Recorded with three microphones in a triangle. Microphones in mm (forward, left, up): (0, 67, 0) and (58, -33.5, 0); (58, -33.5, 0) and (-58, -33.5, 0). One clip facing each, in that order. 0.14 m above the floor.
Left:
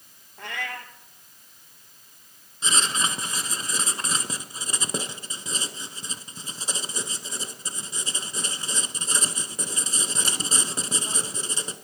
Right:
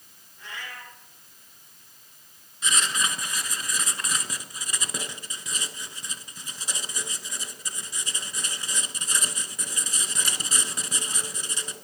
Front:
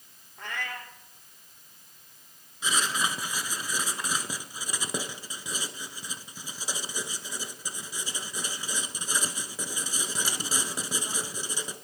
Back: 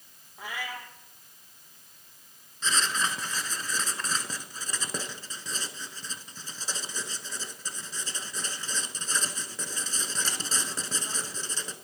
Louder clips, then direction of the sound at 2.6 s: Left 1 dB, even; 70° left.